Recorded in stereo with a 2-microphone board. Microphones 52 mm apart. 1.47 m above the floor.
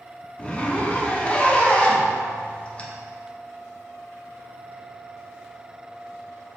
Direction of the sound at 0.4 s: 25° left (ahead or behind).